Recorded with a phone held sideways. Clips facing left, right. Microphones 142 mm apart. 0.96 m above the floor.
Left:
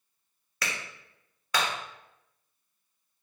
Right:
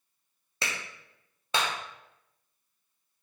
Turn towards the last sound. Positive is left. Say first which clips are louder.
# even
turn(degrees=-25)  # may be behind; listen again after turning